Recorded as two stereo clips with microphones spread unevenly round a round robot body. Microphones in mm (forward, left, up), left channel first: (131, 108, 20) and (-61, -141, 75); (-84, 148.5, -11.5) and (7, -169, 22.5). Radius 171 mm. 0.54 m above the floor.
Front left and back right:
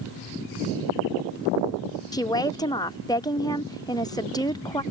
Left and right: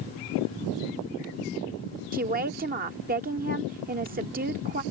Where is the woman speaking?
10° right.